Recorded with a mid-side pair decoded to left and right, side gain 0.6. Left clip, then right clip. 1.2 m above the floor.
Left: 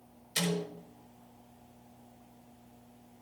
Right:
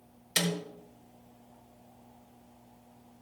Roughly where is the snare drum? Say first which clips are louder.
Right 3 dB; ahead right.